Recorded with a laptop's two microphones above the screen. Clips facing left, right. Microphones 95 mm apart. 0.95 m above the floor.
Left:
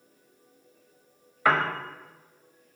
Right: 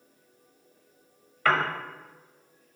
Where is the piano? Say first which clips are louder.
Left 1 dB; 15° left (ahead or behind), 0.9 m.